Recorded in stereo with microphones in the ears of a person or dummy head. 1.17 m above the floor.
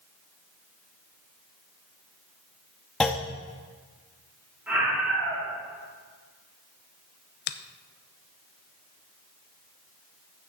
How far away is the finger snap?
About 0.6 m.